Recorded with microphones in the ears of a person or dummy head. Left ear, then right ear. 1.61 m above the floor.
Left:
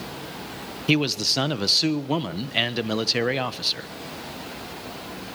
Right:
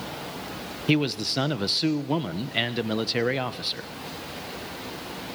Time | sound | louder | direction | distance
0.9 | a man speaking | left 3 dB | 10° left (ahead or behind) | 1.2 m